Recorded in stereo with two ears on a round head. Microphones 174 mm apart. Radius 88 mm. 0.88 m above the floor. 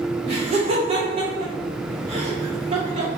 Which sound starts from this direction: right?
Laughter, at 0.3 s.